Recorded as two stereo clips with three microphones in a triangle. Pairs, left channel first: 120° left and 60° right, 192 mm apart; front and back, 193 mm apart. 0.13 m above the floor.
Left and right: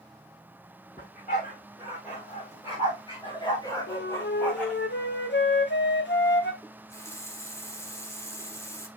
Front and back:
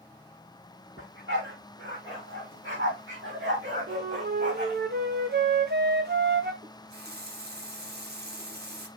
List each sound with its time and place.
1.0 s a dog barking: 165° left, 6.5 m; by 4.8 s 150° right, 3.5 m
3.9 s a flute: 145° left, 1.4 m
6.6 s a running tap: 165° right, 1.6 m